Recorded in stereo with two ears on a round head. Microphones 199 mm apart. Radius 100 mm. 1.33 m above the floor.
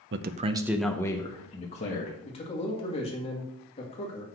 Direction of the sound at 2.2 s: 25° left (ahead or behind).